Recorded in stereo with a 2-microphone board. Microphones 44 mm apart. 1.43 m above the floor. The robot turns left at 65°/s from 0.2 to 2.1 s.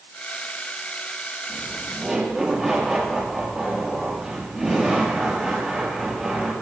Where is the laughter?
130° right, 8.5 m; by 6.5 s 170° right, 8.5 m.